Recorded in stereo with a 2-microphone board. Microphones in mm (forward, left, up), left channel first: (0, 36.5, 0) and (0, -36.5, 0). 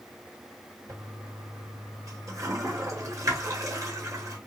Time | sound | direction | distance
0.9 | a toilet flushing | 50° right (ahead or behind) | 1.2 m